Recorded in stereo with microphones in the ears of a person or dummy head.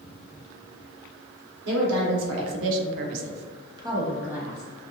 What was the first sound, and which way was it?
A woman speaking, 70° right (ahead or behind).